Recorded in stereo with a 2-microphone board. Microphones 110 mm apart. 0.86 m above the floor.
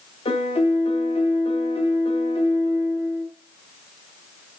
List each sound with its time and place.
0.2 s a piano: 60° left (ahead or behind), 0.7 m